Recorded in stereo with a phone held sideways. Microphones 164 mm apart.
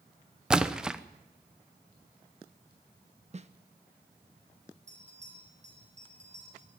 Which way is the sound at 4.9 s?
45° right (ahead or behind).